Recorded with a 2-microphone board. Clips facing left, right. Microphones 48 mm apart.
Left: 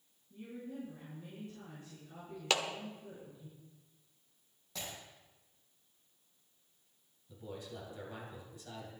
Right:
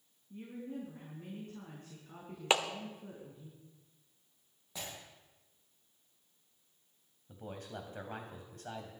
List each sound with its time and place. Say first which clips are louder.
0.3 s a woman speaking: right 2 dB; 50° right (ahead or behind), 4.5 m
2.5 s a clap: right 3 dB; 25° right (ahead or behind), 1.0 m
4.8 s breaking glass: even; 10° right (ahead or behind), 6 m
7.3 s a man speaking: right 1 dB; 55° right (ahead or behind), 3 m